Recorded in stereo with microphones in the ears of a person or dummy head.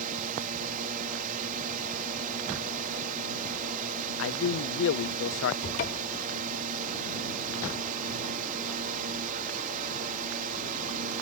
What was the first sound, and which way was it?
A drone, 45° right (ahead or behind).